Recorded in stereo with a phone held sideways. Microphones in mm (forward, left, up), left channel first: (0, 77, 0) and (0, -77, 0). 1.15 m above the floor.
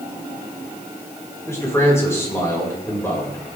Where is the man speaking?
15° left (ahead or behind), 4.5 m.